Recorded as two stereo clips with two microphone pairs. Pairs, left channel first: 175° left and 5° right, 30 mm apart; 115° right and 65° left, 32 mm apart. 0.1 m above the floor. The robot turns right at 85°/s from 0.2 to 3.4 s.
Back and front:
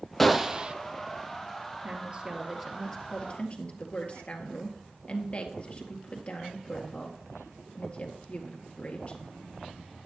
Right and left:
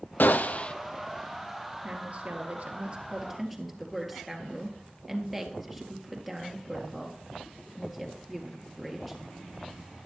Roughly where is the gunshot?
Right.